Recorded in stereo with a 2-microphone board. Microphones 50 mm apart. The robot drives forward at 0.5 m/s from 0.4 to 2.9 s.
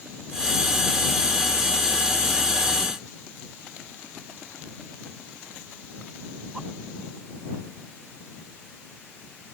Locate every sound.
Only background noise.